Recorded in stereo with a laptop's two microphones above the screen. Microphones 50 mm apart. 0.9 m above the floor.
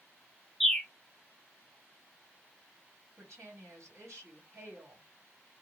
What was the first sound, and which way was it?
A bird, 5° left (ahead or behind).